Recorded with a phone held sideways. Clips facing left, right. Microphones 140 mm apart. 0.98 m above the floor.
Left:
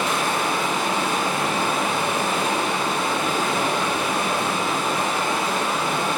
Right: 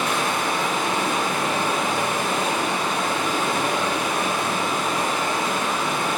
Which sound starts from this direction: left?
Running water, at 0.0 s.